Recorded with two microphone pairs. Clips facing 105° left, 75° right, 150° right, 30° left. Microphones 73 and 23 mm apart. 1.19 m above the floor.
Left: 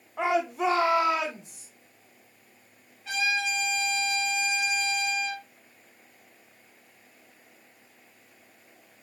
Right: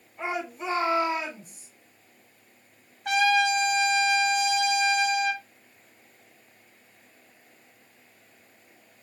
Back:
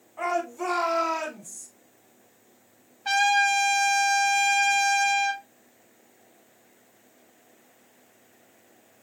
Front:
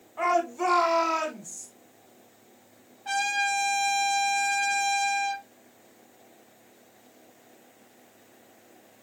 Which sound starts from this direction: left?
A shout, at 0.2 s.